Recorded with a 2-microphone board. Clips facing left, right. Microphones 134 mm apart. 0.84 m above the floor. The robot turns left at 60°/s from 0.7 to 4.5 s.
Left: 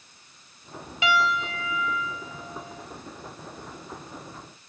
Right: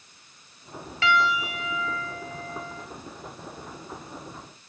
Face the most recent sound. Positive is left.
turn(degrees=165)